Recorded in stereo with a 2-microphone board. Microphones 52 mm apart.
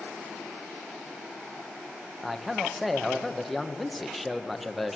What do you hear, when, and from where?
2.2 s a man speaking: centre (ahead or behind), 1.0 m